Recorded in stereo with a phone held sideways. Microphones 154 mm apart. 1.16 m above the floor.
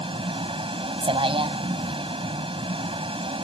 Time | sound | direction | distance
0.0 | a vehicle | 35° right (ahead or behind) | ?